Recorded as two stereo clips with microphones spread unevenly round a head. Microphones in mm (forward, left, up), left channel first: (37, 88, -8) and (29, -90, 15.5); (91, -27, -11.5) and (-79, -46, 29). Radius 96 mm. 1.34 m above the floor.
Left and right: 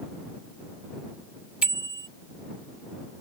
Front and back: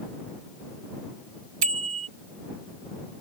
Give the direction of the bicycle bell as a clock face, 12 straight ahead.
6 o'clock.